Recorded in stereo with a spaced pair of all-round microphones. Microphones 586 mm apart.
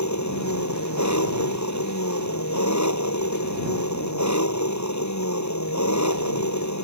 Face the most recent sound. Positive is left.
turn(degrees=30)  # may be behind; listen again after turning